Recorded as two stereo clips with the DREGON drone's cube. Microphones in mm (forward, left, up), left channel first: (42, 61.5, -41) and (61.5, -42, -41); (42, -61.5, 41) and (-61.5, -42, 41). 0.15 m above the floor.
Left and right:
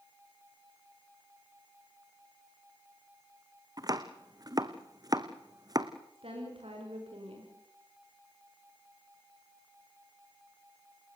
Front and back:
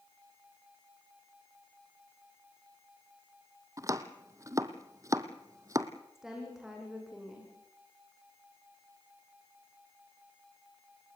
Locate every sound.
3.8 s chopping: 130° right, 1.2 m
6.2 s a woman speaking: 105° right, 9.5 m